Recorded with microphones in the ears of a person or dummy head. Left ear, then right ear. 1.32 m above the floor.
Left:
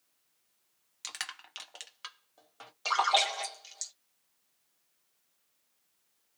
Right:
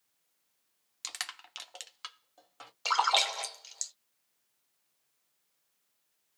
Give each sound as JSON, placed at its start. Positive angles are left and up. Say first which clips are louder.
{"t": 1.0, "sound": "crushing", "louder": "even", "side_deg": -10, "distance_m": 0.6}
{"t": 2.9, "sound": "a splash", "louder": "even", "side_deg": -15, "distance_m": 0.9}